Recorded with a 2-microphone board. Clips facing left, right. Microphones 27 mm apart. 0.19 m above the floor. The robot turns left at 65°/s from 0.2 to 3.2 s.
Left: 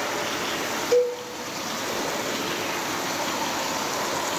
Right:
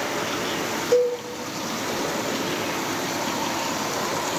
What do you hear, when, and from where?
0.9 s a cowbell: 25° left (ahead or behind), 2 m; by 1.1 s 35° left (ahead or behind), 2 m